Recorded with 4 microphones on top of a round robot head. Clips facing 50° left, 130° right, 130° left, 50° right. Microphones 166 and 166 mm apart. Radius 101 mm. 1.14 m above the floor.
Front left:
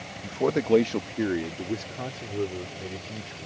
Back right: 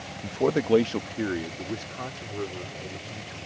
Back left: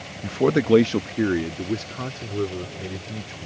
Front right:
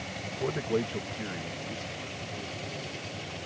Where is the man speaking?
150° left; by 3.5 s 115° left.